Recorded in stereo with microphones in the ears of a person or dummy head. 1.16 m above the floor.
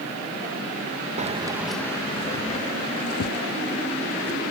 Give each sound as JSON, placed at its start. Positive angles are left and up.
{"t": 1.2, "sound": "keys jangling", "side_deg": -35}